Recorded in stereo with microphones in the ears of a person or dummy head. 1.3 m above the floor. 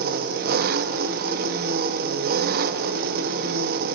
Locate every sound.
0.0 s an engine running: 55° right (ahead or behind), 1.3 m